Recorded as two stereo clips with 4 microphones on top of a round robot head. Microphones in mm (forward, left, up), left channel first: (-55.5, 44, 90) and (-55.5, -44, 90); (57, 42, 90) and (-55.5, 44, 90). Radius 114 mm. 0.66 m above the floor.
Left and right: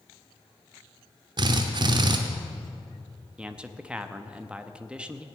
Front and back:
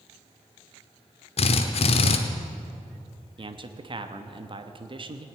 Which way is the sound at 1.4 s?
40° right.